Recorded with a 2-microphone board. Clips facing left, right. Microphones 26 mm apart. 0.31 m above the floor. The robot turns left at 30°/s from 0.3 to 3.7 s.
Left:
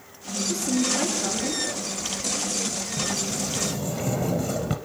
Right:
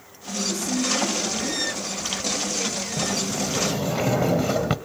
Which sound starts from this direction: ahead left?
A woman speaking, at 0.5 s.